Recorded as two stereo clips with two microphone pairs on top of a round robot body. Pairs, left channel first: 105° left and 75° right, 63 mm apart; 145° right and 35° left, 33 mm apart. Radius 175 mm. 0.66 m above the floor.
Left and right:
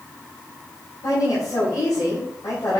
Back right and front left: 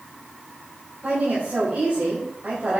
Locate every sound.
1.0 s a woman speaking: 85° left, 5 m